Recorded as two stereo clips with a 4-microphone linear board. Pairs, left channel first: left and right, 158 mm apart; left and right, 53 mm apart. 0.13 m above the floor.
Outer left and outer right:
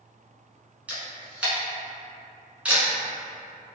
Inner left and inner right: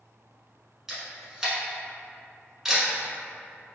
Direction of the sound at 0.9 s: 10° right (ahead or behind).